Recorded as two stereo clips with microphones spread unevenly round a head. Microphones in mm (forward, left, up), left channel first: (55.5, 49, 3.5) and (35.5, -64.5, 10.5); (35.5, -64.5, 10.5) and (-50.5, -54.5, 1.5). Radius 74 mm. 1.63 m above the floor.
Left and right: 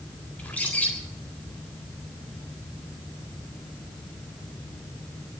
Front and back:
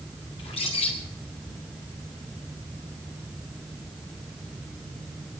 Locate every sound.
0.4 s a bird: straight ahead, 4 m